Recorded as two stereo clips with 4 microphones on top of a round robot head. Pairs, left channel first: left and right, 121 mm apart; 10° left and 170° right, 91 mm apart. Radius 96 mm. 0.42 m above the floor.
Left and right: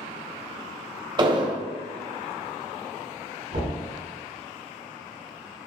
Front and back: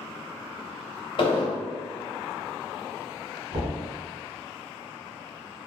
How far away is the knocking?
About 2.0 m.